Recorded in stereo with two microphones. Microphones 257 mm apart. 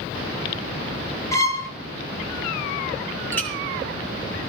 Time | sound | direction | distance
1.3 | a violin | 10° left (ahead or behind) | 3.5 m
3.3 | a clink | 5° left (ahead or behind) | 5 m